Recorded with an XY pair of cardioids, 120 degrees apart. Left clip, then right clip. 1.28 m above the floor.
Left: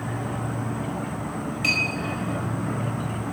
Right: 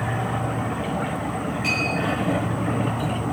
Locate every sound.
0.0 s an insect: 5° right, 4 m
1.6 s a clink: 40° left, 4.5 m